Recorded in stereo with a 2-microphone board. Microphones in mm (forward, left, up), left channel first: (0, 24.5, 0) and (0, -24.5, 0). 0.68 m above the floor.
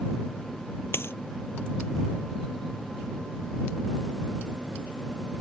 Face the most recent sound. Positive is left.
turn(degrees=50)  # may be behind; listen again after turning